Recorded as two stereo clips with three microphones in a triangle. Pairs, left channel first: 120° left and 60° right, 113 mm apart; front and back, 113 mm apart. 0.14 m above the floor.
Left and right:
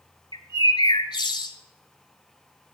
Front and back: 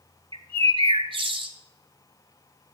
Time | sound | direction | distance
0.3 | a bird | 155° left | 0.8 m